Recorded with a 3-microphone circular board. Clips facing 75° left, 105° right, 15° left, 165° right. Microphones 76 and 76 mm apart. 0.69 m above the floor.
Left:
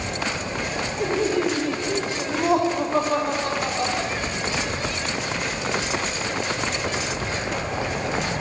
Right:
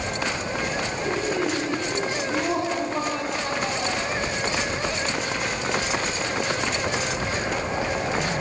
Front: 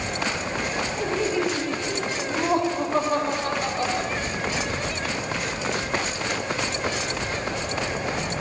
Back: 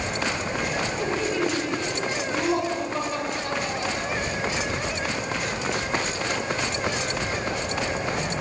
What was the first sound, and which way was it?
Laughter, 100° left.